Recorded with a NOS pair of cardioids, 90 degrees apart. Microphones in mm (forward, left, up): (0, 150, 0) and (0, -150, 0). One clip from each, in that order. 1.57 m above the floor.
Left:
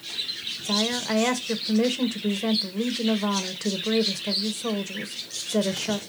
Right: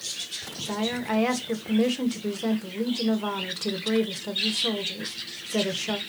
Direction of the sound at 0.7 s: 5° left.